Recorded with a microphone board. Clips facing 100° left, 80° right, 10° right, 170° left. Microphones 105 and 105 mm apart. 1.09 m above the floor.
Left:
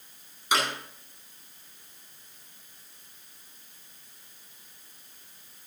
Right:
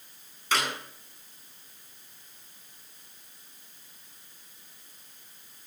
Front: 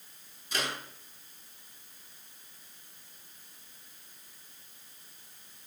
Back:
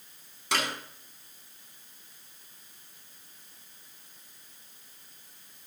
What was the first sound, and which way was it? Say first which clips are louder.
A clap: left 2 dB, back 4 dB; straight behind.